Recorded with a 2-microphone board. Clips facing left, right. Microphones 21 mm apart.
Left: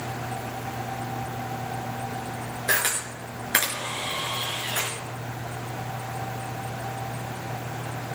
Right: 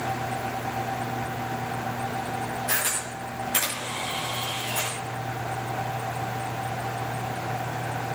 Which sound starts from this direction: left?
A camera shutter, at 2.7 s.